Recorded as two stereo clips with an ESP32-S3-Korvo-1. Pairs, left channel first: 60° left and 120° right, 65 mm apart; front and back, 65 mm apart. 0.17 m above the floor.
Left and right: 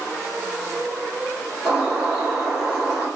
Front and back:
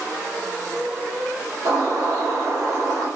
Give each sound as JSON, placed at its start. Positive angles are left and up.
{"t": 1.6, "sound": "a bird", "azimuth_deg": 160, "distance_m": 1.9}